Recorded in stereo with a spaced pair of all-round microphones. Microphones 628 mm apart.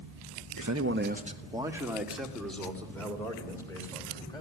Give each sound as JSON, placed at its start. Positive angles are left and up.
{"t": 0.6, "sound": "a man speaking", "side_deg": -35, "distance_m": 0.9}